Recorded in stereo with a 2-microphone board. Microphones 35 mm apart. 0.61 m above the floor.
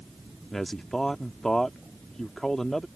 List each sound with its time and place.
0.5 s a man speaking: 15° left (ahead or behind)